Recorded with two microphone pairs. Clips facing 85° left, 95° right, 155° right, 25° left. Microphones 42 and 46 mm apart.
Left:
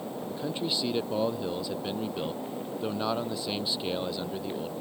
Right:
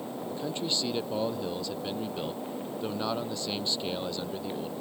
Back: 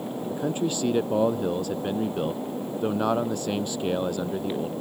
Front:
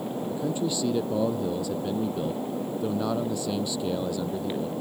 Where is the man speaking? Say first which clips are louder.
Left 1 dB, back 2 dB; 165° left.